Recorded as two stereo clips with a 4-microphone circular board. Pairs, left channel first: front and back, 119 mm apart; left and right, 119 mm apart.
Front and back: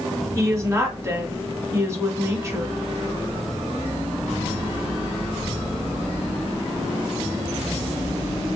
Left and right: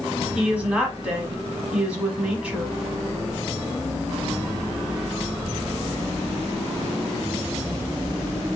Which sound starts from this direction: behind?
A woman speaking, at 0.3 s.